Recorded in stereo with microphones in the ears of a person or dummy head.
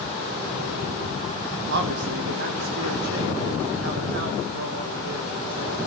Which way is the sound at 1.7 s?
70° right (ahead or behind).